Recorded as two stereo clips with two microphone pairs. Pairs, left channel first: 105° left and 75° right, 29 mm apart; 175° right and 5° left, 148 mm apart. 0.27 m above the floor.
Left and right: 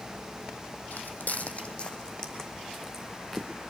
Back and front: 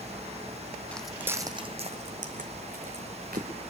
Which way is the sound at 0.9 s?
105° left.